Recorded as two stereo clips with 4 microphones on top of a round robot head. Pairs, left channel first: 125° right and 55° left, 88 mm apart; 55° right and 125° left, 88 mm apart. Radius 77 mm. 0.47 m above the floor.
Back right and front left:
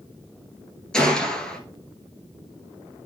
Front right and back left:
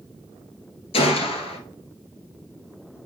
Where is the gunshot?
45° right, 1.9 m.